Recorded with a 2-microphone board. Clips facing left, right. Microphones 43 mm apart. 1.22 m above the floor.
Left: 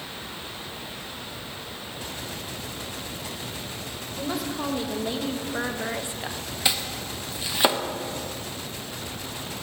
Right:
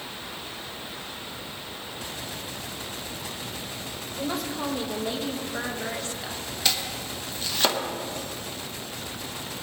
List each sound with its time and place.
4.2 s a woman speaking: centre (ahead or behind), 2.0 m; by 6.5 s 25° left (ahead or behind), 0.8 m
6.7 s chopping: 15° left (ahead or behind), 1.1 m